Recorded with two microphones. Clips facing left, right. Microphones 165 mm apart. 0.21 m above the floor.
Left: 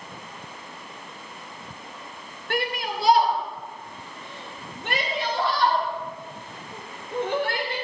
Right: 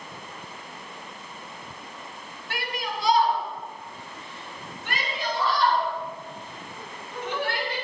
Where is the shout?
55° left (ahead or behind), 3.5 m.